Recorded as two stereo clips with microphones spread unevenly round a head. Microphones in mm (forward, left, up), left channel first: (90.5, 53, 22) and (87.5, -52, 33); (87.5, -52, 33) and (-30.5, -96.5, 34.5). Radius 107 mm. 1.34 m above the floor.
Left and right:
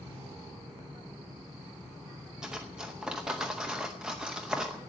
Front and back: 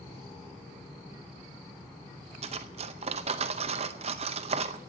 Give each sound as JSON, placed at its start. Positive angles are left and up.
{"t": 2.4, "sound": "cutlery clinking", "azimuth_deg": -170, "distance_m": 0.6}